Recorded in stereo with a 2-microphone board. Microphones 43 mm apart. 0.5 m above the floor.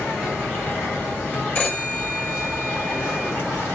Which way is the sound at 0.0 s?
55° left (ahead or behind).